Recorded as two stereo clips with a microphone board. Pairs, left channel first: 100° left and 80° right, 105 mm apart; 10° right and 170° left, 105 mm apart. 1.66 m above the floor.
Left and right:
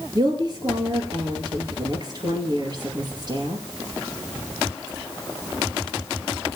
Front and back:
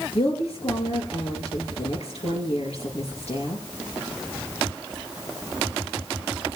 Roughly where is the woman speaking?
Ahead right.